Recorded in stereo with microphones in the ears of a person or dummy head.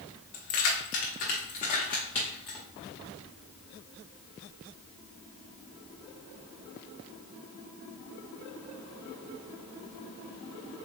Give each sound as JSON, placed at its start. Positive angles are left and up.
{"t": 0.3, "sound": "keys jangling", "side_deg": 45, "distance_m": 1.1}